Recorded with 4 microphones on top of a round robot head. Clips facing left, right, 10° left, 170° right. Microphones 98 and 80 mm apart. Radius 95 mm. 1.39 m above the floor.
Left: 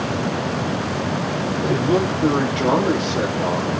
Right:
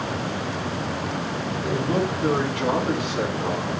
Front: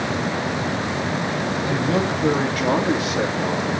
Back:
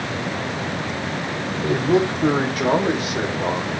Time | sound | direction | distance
1.6 | a man speaking | 140° left | 4.5 m